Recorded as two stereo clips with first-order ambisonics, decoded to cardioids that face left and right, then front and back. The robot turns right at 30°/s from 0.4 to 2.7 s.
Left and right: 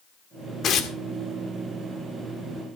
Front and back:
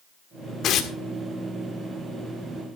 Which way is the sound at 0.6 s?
40° left.